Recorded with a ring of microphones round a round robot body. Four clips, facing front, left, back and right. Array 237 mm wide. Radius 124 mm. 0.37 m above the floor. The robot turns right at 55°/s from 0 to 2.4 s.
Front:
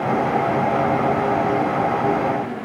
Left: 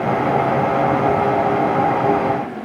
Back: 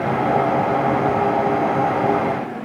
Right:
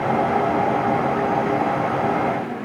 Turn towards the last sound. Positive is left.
No sound to turn to.